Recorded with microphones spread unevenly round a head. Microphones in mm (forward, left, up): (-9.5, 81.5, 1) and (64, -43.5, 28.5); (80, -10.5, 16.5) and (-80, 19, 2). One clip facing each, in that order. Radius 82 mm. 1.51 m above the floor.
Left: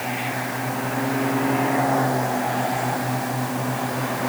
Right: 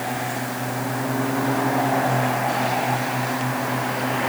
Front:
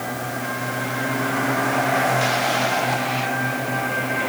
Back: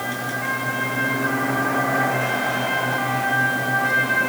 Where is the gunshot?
I don't hear a gunshot.